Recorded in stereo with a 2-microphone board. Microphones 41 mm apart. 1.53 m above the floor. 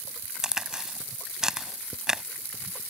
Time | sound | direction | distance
0.4 | a crack | 15° right (ahead or behind) | ?